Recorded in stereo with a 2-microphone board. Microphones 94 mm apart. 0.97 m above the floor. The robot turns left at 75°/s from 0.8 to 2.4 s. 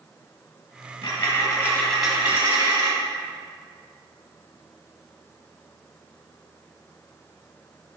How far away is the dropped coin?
About 2 m.